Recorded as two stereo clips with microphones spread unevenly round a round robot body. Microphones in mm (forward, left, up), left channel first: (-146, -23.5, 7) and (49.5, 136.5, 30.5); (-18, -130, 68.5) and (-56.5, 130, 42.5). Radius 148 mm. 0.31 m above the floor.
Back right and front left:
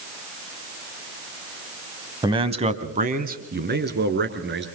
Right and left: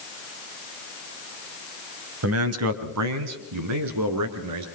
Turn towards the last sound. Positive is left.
turn(degrees=85)